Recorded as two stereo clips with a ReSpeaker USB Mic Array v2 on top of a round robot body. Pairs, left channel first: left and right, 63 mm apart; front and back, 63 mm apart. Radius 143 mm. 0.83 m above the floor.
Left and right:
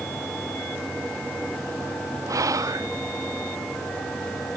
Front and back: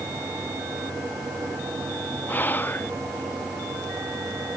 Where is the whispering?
60° right.